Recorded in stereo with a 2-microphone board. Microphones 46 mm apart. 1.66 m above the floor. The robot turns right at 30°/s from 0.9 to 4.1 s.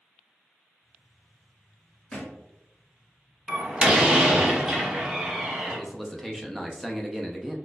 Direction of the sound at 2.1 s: 15° left (ahead or behind).